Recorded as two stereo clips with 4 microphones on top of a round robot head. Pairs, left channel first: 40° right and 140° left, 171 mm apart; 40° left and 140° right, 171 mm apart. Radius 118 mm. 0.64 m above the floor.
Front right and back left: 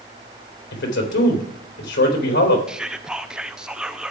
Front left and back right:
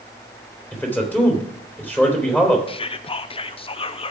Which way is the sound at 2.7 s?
55° left.